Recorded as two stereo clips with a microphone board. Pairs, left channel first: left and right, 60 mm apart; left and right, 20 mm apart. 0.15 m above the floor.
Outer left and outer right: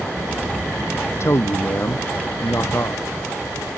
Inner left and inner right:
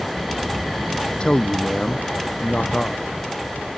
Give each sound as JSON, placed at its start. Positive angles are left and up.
{"t": 1.2, "sound": "a man speaking", "side_deg": 50}